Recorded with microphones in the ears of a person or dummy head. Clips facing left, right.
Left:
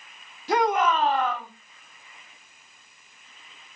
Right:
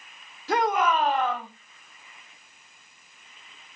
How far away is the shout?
About 1.5 m.